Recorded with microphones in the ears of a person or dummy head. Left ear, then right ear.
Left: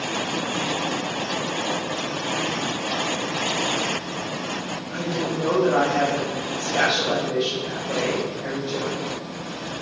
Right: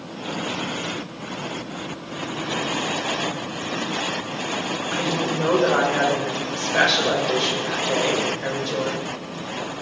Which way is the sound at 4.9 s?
75° right (ahead or behind).